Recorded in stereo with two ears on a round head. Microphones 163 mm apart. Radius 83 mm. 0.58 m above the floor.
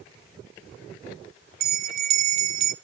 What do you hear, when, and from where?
1.6 s a bell: 55° right (ahead or behind), 0.8 m